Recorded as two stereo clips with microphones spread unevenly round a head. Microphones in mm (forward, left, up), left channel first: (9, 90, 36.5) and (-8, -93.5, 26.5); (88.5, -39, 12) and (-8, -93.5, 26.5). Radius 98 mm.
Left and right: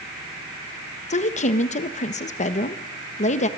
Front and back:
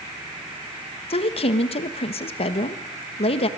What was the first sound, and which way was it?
A woman speaking, 35° left.